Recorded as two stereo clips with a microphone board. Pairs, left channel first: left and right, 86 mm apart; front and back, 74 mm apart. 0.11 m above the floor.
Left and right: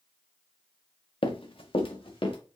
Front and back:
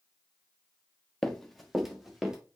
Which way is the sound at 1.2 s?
80° left.